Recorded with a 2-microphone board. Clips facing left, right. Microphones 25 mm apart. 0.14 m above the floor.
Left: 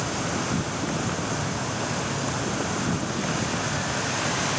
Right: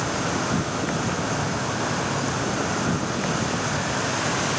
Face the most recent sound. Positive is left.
turn(degrees=-15)  # may be behind; listen again after turning